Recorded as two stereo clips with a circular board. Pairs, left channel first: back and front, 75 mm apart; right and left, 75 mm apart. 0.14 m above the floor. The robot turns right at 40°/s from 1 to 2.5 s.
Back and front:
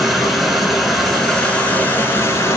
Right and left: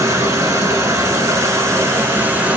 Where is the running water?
85° left, 1.1 m; by 2.6 s 145° left, 1.1 m.